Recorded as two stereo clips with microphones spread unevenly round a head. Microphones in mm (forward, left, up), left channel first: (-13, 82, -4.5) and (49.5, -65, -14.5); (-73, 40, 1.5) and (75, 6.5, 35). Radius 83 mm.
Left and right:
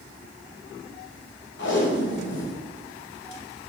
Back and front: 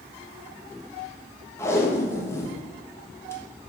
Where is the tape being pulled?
95° left, 1.2 m.